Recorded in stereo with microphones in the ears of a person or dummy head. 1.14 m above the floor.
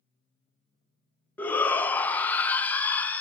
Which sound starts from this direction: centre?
A shout, at 1.4 s.